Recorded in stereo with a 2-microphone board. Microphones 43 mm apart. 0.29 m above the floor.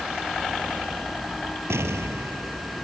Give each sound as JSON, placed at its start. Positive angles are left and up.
{"t": 1.7, "sound": "an explosion", "side_deg": -80}